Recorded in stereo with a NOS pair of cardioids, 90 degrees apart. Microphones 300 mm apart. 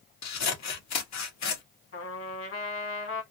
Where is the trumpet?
45° left, 1.9 m.